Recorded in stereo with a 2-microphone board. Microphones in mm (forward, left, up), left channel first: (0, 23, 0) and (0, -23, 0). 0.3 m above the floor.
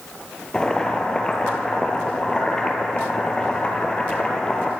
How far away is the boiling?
About 1.9 m.